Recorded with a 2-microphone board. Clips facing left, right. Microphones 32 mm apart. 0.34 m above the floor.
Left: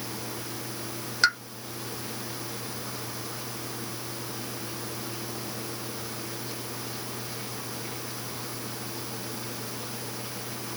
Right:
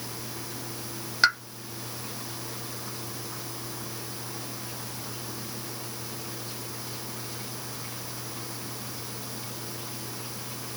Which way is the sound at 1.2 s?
10° right (ahead or behind).